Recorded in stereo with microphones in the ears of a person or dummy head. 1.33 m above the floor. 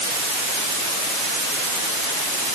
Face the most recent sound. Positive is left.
No sound to turn to.